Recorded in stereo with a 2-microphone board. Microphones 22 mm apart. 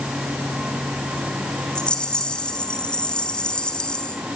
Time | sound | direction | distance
1.8 | a rattle | 45° left (ahead or behind) | 3.5 m